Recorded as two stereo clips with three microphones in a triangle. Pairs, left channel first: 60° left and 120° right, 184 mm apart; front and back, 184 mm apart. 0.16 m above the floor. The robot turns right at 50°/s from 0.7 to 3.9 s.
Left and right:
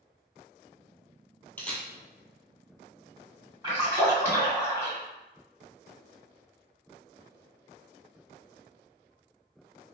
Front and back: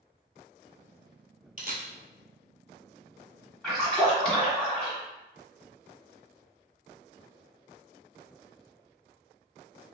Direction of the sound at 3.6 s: 85° right.